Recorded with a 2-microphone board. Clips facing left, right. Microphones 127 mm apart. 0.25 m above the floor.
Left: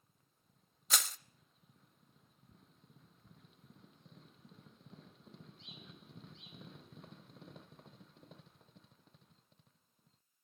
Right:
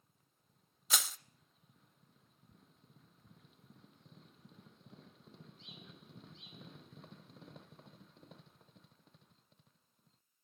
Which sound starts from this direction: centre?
Crushing, at 0.9 s.